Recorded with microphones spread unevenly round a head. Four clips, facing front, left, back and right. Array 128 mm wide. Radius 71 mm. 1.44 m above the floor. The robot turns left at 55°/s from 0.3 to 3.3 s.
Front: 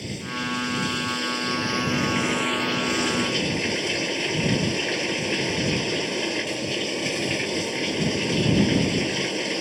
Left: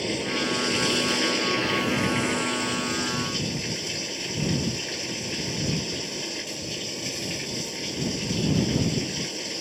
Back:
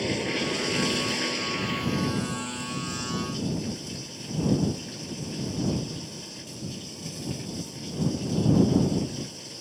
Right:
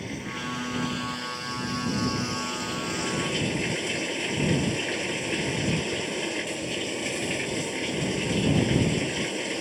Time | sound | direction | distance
0.0 | running water | 150° left | ?